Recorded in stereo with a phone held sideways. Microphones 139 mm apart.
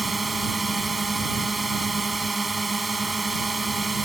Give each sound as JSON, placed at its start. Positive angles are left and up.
{"t": 0.0, "sound": "a drone", "side_deg": 0}